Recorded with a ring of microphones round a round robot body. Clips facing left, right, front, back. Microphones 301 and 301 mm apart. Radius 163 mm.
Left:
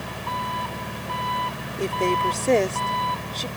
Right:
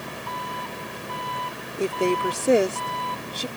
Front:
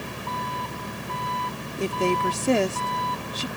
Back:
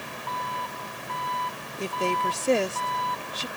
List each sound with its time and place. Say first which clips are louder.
0.0 s an engine running: left 2 dB, front 4 dB; 65° left
1.8 s a woman speaking: right 2 dB, front 5 dB; 10° right